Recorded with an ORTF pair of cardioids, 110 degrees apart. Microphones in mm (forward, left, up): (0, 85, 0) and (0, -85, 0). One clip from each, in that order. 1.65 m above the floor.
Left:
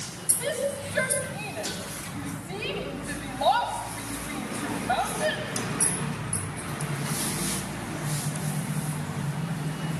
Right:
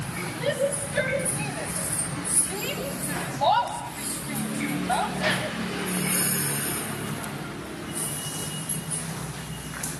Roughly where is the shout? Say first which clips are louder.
Right 3 dB; ahead.